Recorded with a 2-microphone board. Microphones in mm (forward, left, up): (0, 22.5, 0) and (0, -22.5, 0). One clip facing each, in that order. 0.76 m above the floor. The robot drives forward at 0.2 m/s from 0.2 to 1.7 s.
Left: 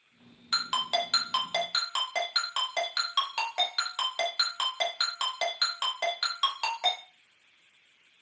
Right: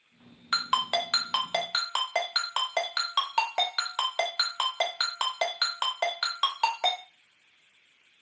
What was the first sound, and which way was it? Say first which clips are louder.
A ringtone: right 2 dB; 25° right (ahead or behind).